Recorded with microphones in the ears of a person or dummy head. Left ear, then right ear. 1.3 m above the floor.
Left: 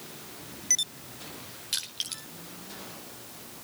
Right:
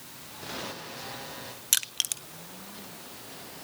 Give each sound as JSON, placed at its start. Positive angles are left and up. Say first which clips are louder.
{"t": 1.7, "sound": "crushing", "louder": "right 4 dB", "side_deg": -35, "distance_m": 0.5}